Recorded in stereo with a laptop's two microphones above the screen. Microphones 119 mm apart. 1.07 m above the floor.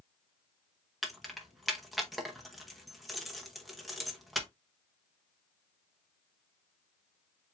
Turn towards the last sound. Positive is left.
turn(degrees=0)  # may be behind; listen again after turning